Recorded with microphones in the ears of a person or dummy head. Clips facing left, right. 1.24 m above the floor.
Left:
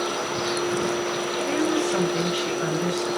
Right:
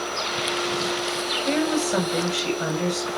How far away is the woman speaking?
About 7.5 m.